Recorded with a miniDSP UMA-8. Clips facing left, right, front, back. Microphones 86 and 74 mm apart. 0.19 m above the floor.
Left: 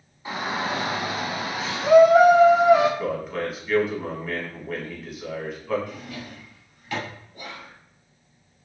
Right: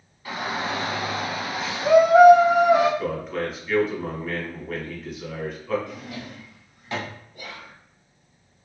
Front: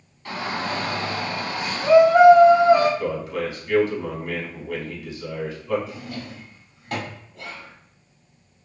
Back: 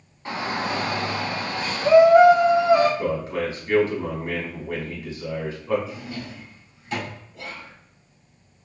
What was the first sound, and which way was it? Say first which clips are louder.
A shout: left 1 dB, back 1 dB; 140° left.